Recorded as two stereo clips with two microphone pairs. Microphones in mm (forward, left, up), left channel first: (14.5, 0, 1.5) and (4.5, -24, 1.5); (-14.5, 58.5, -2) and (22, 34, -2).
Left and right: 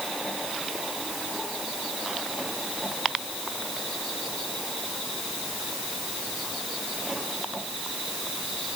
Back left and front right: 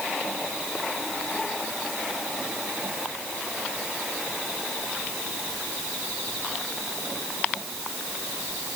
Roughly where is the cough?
No cough in this recording.